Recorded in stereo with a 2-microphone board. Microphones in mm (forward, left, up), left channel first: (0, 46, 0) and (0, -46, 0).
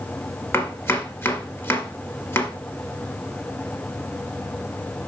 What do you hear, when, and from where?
0.5 s chopping: 30° left (ahead or behind), 1.8 m